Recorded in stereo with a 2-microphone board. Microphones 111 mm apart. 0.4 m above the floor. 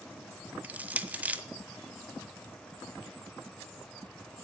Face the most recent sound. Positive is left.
turn(degrees=-15)  # may be behind; listen again after turning